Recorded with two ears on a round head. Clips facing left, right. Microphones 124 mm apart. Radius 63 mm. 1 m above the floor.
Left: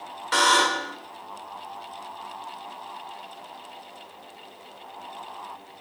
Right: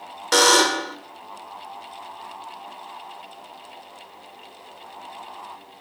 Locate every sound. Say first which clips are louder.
0.3 s a buzzer: right 4 dB; 50° right (ahead or behind), 1.3 m